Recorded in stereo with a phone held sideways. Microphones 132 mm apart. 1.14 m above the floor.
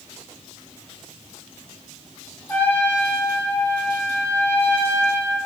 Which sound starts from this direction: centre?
A trumpet, at 2.5 s.